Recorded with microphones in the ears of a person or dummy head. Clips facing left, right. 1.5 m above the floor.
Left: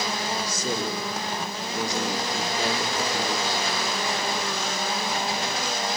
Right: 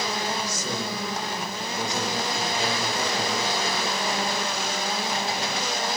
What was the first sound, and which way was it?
A man speaking, 35° left (ahead or behind).